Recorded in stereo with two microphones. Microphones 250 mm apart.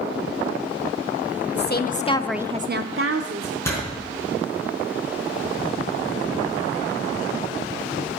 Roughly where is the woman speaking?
Left.